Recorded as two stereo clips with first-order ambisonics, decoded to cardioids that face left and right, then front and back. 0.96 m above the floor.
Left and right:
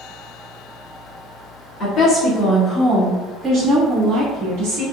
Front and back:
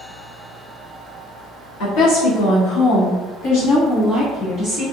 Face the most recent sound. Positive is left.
turn(degrees=-75)